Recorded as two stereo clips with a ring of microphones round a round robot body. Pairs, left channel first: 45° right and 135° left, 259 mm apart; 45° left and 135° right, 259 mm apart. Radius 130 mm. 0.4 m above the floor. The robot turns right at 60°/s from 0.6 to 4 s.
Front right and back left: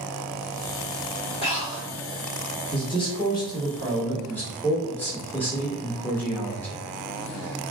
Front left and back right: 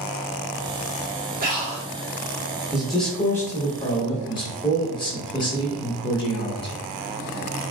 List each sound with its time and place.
1.4 s breathing: 100° right, 0.8 m; by 1.9 s 75° right, 0.8 m
2.7 s a man speaking: 55° right, 0.8 m; by 6.8 s 25° left, 0.8 m